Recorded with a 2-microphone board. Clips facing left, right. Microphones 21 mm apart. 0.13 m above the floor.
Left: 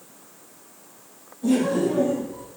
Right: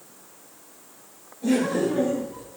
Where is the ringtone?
No ringtone in this recording.